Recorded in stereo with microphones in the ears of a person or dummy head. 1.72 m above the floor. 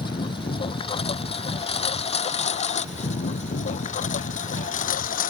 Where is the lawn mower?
25° left (ahead or behind); by 5.3 s 45° left (ahead or behind).